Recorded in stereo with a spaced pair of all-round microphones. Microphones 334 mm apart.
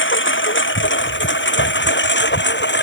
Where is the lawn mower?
35° left (ahead or behind).